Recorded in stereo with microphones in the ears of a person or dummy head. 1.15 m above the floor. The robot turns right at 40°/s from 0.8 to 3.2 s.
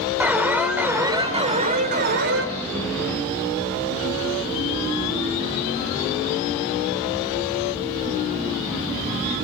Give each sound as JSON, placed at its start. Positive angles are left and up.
{"t": 0.2, "sound": "an alarm", "azimuth_deg": -175, "distance_m": 3.5}